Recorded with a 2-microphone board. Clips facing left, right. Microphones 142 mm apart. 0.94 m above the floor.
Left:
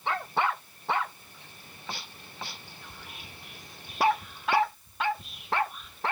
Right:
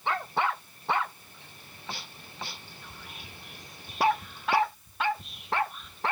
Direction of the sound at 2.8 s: Centre (ahead or behind).